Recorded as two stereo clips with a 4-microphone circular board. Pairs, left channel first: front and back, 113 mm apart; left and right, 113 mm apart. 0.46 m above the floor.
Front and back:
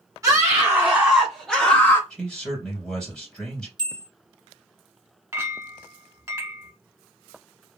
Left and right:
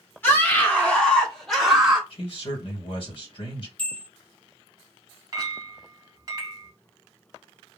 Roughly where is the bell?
Behind.